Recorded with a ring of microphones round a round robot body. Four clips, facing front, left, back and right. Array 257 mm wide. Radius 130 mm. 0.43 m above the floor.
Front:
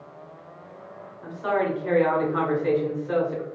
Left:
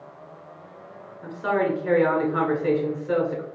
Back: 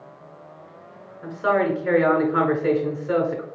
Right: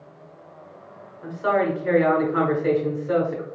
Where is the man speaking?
175° left, 1.3 m.